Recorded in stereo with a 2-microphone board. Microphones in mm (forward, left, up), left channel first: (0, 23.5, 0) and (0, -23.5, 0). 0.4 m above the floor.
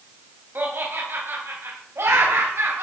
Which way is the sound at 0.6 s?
45° right (ahead or behind).